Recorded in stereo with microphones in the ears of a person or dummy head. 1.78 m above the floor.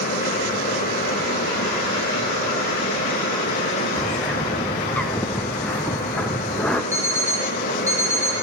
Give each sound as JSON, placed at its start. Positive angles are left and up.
{"t": 0.0, "sound": "a fan", "side_deg": 45, "distance_m": 1.6}
{"t": 4.0, "sound": "a bird", "side_deg": 10, "distance_m": 0.6}
{"t": 6.9, "sound": "an alarm clock", "side_deg": -15, "distance_m": 2.0}